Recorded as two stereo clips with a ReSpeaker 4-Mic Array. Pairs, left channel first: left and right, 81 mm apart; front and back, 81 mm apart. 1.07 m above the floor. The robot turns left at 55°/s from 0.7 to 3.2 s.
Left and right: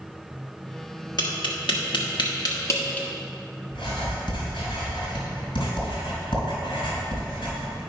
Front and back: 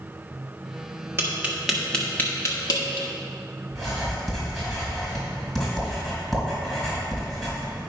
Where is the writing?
85° left, 3.5 m.